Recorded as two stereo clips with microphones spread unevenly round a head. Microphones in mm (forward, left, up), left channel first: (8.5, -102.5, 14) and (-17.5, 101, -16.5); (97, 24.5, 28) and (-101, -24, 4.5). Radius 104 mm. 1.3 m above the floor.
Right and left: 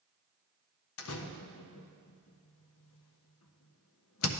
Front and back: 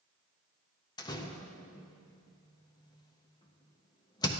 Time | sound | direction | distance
1.0 | a door slam | 60° right | 0.6 m